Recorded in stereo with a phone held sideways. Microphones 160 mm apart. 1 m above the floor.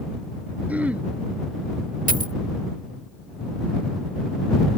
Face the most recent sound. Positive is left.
turn(degrees=-60)  # may be behind; listen again after turning